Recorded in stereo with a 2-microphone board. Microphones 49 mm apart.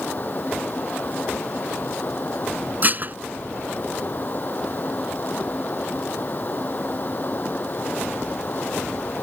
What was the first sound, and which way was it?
Running water, 40° left (ahead or behind).